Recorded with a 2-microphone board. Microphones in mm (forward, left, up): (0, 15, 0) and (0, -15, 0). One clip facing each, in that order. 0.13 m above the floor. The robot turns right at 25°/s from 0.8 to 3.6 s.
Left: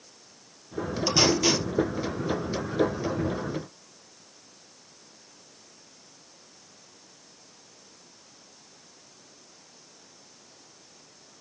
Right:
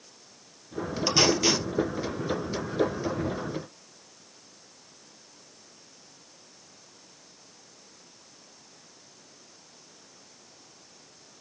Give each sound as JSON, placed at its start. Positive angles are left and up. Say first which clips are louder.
{"t": 1.1, "sound": "tape being pulled", "louder": "even", "side_deg": -10, "distance_m": 3.0}